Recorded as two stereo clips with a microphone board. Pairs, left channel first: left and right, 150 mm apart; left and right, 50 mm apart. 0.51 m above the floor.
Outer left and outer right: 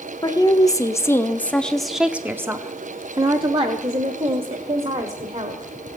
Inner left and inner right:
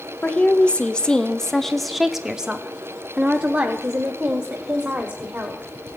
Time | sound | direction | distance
0.2 | a woman speaking | 30° left (ahead or behind) | 1.7 m